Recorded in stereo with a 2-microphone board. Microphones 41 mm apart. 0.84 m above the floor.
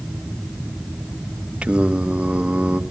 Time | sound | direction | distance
1.6 | singing | 25° right (ahead or behind) | 1.0 m